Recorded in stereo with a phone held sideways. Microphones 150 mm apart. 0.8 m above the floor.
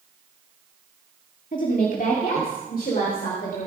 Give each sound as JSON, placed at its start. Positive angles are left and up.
{"t": 1.5, "sound": "a woman speaking", "side_deg": 60, "distance_m": 1.9}